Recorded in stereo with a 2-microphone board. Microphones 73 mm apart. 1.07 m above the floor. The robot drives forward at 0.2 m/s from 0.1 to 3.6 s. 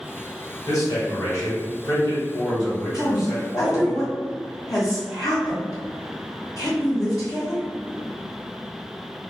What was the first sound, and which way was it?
A man speaking, 60° left (ahead or behind).